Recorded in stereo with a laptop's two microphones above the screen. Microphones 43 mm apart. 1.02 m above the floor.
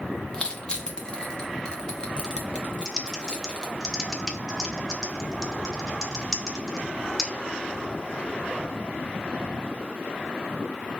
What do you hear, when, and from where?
0.3 s crushing: 20° left (ahead or behind), 0.5 m
2.9 s typing on a keyboard: centre (ahead or behind), 0.5 m